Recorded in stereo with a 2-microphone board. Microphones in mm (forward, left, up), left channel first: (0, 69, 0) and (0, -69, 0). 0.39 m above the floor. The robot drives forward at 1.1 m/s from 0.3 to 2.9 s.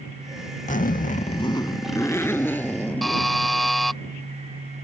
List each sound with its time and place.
0.7 s a zipper: 60° left (ahead or behind); by 3.4 s 10° left (ahead or behind)
3.0 s a buzzer: centre (ahead or behind)